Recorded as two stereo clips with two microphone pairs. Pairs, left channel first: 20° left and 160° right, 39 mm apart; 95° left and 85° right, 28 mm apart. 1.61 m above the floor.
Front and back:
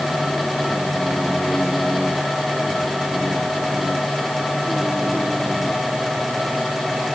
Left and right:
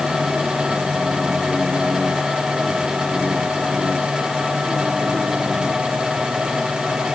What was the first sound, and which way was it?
Only background noise.